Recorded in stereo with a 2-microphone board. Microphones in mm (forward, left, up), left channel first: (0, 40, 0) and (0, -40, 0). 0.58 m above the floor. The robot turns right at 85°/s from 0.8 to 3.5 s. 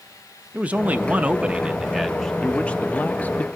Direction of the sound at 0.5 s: 20° right (ahead or behind).